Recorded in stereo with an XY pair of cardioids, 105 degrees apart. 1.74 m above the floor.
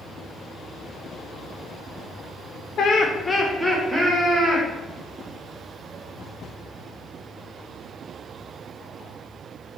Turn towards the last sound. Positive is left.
turn(degrees=-20)